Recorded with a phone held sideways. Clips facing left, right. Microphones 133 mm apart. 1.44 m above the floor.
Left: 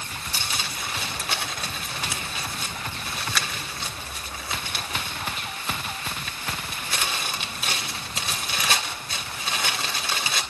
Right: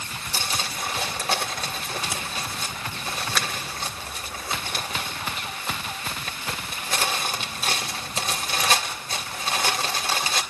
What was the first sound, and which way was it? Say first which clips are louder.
Crumpling: right 4 dB; 40° right (ahead or behind).